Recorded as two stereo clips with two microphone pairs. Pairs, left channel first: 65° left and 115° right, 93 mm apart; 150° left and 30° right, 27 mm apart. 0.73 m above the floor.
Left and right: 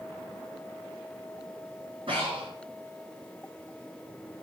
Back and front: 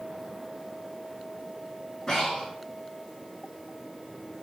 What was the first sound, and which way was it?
Breathing, 135° right.